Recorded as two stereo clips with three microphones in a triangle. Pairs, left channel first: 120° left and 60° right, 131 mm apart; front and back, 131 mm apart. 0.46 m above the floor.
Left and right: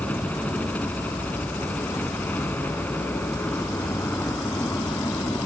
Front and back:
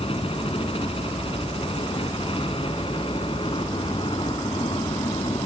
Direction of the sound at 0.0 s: 40° left.